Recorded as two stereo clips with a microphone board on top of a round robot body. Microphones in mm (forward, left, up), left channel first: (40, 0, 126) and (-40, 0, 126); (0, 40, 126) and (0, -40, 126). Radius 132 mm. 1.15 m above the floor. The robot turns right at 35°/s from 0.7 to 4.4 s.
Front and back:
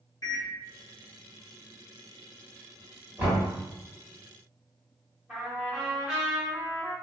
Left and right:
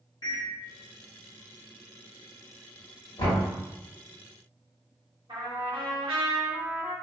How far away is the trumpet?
About 1.0 m.